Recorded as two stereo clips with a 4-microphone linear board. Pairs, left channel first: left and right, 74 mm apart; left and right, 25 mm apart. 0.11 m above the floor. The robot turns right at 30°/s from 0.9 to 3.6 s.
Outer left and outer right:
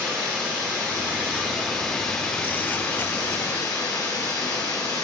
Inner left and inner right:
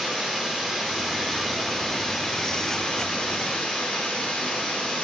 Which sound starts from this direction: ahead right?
Running water, at 0.0 s.